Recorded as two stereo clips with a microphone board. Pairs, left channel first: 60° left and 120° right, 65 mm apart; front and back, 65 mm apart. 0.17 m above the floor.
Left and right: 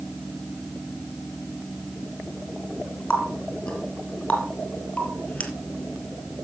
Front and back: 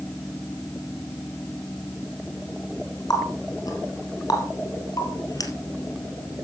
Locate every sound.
3.1 s a running tap: 15° right, 3 m